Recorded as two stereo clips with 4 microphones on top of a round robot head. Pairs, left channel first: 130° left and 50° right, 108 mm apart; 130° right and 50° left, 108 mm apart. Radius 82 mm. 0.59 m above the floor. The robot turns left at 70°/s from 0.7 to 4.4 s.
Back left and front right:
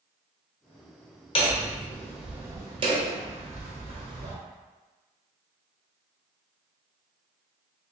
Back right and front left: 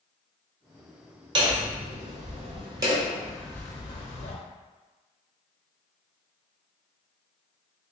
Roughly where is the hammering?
Left.